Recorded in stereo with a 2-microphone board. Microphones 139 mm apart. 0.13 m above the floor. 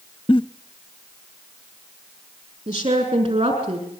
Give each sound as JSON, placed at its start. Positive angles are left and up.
{"t": 0.3, "sound": "a giggle", "side_deg": 40, "distance_m": 0.7}
{"t": 2.7, "sound": "a woman speaking", "side_deg": -35, "distance_m": 6.5}